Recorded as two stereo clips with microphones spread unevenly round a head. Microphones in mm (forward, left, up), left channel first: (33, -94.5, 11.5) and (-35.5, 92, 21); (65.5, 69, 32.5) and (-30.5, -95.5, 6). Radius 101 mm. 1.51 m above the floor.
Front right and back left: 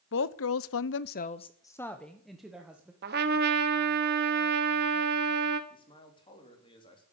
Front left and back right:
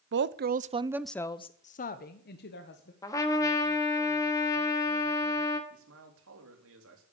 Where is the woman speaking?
100° right, 0.8 m; by 2.9 s 25° left, 1.7 m.